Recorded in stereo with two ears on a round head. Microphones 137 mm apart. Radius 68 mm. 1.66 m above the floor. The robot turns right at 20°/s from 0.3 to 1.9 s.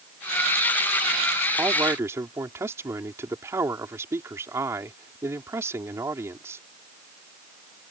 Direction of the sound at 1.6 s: 15° right (ahead or behind).